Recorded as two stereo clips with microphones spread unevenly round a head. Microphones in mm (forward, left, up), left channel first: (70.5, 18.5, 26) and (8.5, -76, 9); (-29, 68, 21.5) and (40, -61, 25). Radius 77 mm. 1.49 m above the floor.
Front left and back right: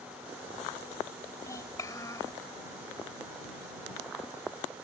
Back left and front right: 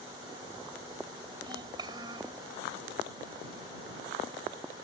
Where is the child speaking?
Straight ahead.